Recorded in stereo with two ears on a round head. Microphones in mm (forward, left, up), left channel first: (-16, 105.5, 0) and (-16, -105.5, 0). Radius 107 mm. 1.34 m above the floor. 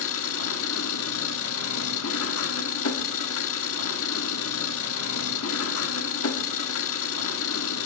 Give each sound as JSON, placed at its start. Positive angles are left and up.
{"t": 0.0, "sound": "an engine running", "side_deg": 65, "distance_m": 1.5}